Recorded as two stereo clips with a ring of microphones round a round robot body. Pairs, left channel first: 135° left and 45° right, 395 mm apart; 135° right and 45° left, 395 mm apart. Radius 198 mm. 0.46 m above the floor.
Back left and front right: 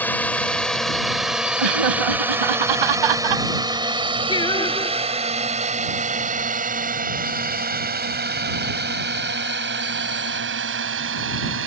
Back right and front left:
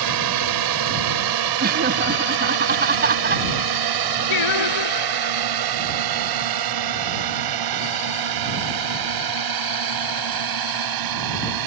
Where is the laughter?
20° right.